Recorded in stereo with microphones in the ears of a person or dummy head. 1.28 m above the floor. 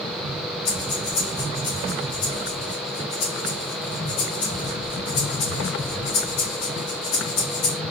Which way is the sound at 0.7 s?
65° left (ahead or behind).